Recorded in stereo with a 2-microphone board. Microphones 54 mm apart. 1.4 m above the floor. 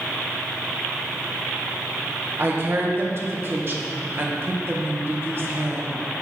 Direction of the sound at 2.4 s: 45° right (ahead or behind).